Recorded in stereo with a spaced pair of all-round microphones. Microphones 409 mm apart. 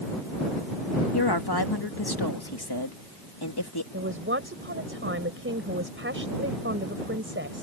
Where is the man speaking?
30° right (ahead or behind).